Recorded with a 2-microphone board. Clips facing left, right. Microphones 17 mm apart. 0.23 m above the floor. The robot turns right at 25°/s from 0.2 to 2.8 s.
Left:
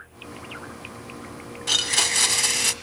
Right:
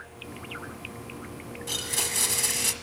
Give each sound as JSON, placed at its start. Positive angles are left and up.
{"t": 1.7, "sound": "a blender", "side_deg": 35, "distance_m": 1.4}